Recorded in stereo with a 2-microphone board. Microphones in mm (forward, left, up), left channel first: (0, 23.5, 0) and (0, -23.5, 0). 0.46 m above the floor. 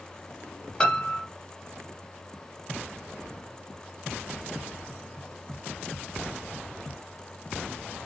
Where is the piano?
20° left (ahead or behind), 0.6 m.